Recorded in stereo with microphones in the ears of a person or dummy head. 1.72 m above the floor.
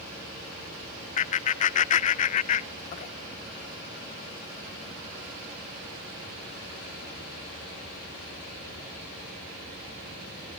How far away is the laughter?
About 0.6 m.